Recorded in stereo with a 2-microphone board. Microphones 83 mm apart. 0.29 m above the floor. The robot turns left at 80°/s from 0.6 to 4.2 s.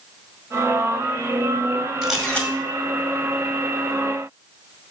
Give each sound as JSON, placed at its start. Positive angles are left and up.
{"t": 2.0, "sound": "a camera shutter", "azimuth_deg": -170, "distance_m": 2.0}